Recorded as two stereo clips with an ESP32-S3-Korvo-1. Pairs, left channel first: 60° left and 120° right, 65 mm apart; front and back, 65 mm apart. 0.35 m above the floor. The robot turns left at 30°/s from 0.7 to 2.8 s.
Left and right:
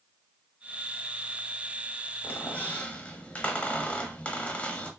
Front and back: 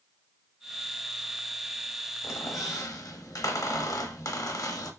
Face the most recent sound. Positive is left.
turn(degrees=-5)